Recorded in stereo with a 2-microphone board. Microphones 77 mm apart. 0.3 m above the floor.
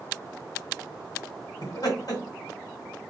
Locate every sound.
1.6 s laughter: 55° left (ahead or behind), 2 m